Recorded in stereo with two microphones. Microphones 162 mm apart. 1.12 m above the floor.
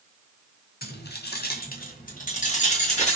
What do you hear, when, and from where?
0.8 s keys jangling: 75° left (ahead or behind), 0.5 m; by 3.2 s 45° left (ahead or behind), 1.4 m